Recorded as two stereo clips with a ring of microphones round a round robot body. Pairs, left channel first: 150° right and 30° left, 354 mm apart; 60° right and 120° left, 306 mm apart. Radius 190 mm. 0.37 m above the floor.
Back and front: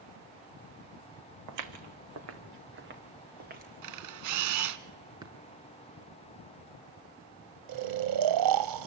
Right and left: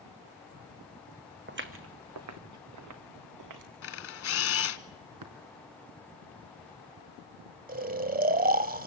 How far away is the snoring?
About 1.3 m.